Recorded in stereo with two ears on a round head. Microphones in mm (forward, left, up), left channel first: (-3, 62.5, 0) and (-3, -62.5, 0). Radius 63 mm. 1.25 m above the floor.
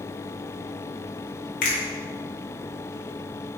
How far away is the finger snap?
About 1.8 m.